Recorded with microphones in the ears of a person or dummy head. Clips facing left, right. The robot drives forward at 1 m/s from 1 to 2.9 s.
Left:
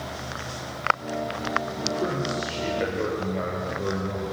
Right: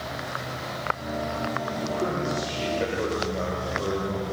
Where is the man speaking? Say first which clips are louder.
Even; centre (ahead or behind), 4.5 m.